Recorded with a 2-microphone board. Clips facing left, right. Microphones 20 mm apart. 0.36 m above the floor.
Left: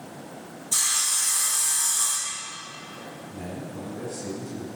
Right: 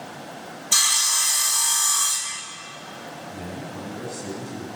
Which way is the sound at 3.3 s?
25° right (ahead or behind).